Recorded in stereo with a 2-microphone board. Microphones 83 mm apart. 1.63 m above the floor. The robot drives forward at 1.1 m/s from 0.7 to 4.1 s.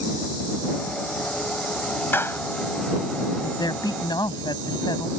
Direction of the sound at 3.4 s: 55° left (ahead or behind).